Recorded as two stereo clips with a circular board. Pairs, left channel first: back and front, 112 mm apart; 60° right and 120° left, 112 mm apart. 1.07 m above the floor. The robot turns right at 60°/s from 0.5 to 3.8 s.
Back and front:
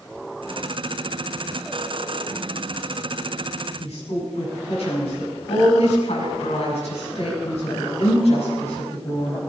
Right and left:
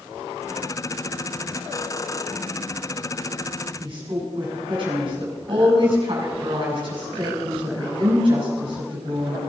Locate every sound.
3.8 s a woman speaking: 160° left, 7.5 m